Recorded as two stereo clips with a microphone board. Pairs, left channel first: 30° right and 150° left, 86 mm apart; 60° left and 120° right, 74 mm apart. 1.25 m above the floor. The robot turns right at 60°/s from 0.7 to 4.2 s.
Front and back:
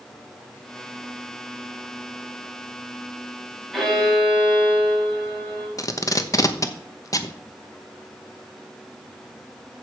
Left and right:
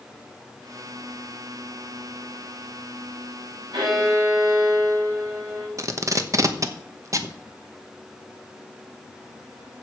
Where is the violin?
120° right, 6.5 m; by 5.7 s 90° right, 6.5 m.